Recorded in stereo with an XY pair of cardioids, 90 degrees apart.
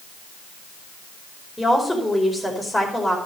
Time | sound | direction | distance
1.6 | a woman speaking | 10° left | 5 m